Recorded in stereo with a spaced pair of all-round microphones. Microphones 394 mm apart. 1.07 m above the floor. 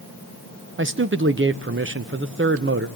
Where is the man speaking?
30° right (ahead or behind), 0.7 m.